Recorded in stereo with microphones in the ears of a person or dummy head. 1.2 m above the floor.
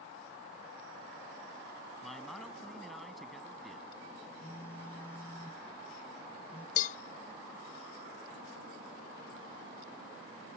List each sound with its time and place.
2.0 s a man speaking: centre (ahead or behind)
4.4 s a phone buzzing: 15° left (ahead or behind)
6.8 s a cowbell: 45° left (ahead or behind)